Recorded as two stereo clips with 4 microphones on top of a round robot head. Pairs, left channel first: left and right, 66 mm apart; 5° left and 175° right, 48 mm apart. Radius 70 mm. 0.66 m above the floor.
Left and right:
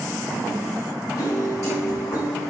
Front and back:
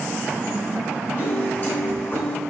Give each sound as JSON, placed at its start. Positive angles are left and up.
{"t": 1.2, "sound": "a piano", "azimuth_deg": 45, "distance_m": 1.9}